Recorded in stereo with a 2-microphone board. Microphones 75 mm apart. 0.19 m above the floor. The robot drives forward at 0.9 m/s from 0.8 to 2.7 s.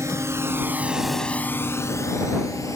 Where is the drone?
40° right (ahead or behind); by 2.8 s 45° left (ahead or behind).